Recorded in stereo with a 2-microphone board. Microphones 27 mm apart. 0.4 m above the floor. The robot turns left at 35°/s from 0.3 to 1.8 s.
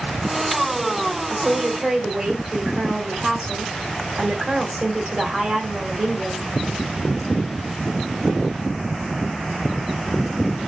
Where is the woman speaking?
35° right (ahead or behind), 1.4 m; by 6.5 s 45° right (ahead or behind), 1.4 m.